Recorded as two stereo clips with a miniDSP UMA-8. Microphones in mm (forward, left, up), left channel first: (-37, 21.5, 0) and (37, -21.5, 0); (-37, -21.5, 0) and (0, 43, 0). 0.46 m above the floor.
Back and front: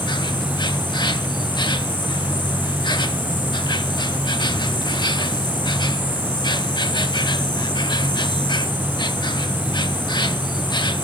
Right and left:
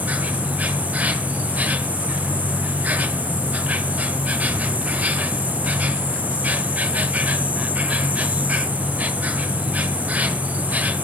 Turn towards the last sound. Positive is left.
turn(degrees=125)